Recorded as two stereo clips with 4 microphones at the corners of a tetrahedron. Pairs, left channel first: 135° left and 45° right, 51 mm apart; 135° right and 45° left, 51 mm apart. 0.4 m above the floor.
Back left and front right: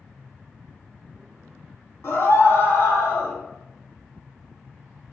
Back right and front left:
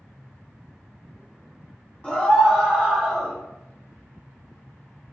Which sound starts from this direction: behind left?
A scream, at 2.0 s.